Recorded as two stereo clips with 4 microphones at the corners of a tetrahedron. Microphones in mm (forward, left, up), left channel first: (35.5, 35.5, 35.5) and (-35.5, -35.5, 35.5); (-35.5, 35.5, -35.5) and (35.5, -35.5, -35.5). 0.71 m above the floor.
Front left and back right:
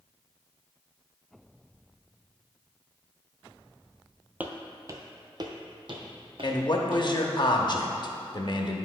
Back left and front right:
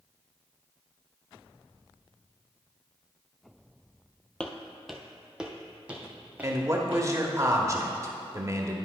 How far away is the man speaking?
About 0.9 m.